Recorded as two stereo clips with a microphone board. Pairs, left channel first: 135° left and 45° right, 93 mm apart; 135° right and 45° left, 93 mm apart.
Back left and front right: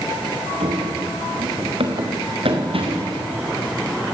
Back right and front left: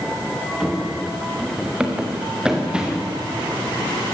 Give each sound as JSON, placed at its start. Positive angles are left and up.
{"t": 0.6, "sound": "running footsteps", "azimuth_deg": -40, "distance_m": 3.5}